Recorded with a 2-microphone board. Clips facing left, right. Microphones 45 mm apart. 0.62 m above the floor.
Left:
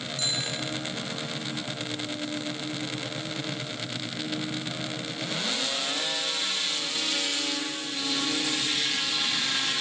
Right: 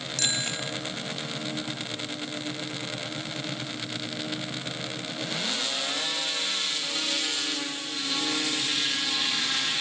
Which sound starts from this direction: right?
A bicycle bell, at 0.2 s.